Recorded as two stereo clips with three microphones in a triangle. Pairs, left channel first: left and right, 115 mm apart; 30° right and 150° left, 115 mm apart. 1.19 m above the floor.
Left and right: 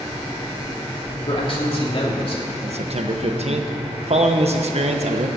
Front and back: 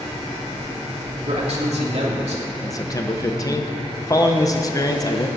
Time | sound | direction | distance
1.2 | a man speaking | 125° left | 2.5 m
2.6 | a man speaking | 85° right | 1.0 m